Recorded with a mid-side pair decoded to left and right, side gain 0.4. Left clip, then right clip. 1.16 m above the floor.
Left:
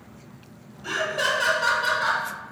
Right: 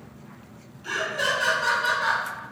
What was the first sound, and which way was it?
Laughter, 40° left.